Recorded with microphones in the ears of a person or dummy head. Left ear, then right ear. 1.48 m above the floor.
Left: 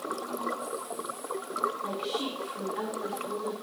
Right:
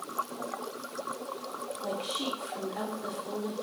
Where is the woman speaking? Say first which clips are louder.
Left 1 dB; centre (ahead or behind), 5 m.